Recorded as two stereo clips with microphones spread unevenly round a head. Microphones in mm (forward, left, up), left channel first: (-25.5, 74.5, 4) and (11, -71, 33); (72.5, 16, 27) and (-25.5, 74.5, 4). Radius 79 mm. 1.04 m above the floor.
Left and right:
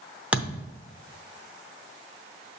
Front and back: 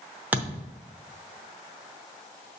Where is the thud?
120° right, 0.7 m.